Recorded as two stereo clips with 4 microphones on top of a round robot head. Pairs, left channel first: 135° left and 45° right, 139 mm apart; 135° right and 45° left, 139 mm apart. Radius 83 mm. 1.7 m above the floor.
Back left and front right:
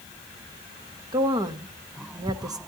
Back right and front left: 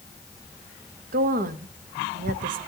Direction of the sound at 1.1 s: 20° left.